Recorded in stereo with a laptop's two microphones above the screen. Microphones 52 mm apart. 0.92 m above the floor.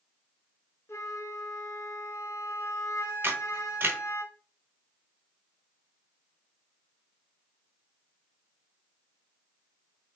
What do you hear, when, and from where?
0.9 s a flute: 55° left (ahead or behind), 1.1 m
3.2 s a camera shutter: 50° right (ahead or behind), 1.1 m